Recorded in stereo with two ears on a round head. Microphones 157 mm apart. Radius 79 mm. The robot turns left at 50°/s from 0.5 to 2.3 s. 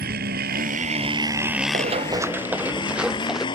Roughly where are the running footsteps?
Right.